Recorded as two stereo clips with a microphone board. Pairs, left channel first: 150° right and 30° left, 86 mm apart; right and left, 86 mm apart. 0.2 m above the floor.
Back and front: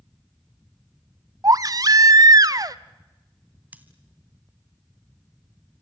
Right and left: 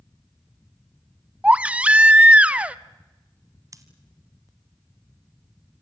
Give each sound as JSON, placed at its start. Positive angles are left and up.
{"t": 1.4, "sound": "a baby crying", "azimuth_deg": 20, "distance_m": 0.5}
{"t": 3.7, "sound": "scissors", "azimuth_deg": 90, "distance_m": 1.6}